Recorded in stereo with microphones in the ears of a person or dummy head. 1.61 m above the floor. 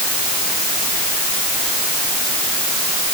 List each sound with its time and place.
Only background noise.